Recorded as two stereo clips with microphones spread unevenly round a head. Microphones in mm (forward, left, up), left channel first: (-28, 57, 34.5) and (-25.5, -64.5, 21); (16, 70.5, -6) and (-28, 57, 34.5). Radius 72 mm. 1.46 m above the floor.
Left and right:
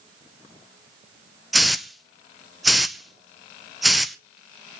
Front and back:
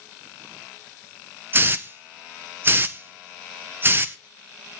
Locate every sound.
1.5 s a hiss: straight behind, 0.7 m